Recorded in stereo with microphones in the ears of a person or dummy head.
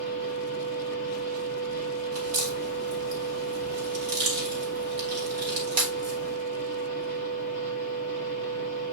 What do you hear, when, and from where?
0.0 s a machine running: 40° right (ahead or behind), 1.7 m
2.1 s a crack: 75° right (ahead or behind), 3 m